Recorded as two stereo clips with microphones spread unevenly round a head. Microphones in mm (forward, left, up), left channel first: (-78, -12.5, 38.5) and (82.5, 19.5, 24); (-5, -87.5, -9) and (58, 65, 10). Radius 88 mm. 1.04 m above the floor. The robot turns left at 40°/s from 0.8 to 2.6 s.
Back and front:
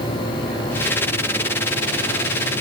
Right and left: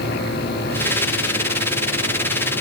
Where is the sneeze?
I don't hear a sneeze.